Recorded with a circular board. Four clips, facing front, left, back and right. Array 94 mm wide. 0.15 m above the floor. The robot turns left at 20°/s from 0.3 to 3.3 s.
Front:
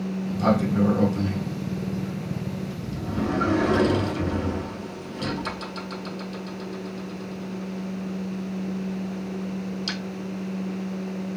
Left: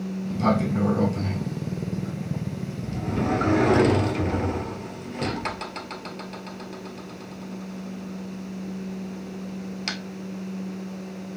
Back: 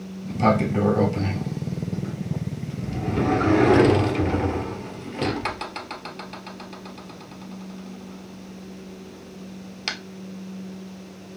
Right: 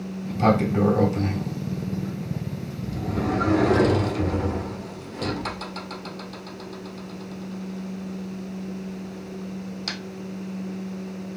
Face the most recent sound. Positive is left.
turn(degrees=160)